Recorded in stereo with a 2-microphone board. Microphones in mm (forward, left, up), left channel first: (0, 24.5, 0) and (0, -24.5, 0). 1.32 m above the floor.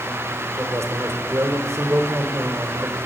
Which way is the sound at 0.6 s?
85° right.